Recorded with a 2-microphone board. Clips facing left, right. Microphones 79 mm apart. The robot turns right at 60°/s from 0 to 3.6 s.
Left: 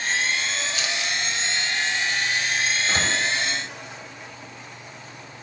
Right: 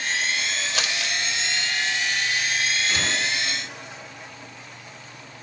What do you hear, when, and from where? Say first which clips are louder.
0.7 s crumpling: even; 75° right (ahead or behind), 1.3 m; by 1.2 s 80° right, 1.3 m
2.9 s a door slam: left 2 dB; 40° left (ahead or behind), 3 m; by 3.1 s 50° left (ahead or behind), 3 m